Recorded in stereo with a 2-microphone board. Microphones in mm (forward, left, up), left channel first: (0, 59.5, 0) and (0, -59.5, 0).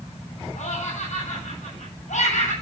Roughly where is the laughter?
Left.